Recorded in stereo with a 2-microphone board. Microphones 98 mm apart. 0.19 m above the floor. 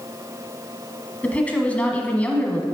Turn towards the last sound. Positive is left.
turn(degrees=15)  # may be behind; listen again after turning